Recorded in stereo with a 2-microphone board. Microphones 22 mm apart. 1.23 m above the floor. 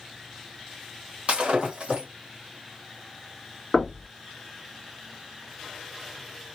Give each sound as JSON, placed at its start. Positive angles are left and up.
{"t": 1.3, "sound": "breaking glass", "side_deg": -60, "distance_m": 2.0}
{"t": 3.7, "sound": "knocking", "side_deg": 0, "distance_m": 1.3}